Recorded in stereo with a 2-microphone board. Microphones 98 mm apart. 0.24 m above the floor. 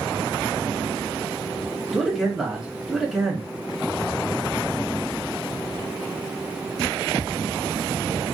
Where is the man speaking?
Centre (ahead or behind), 1.4 m.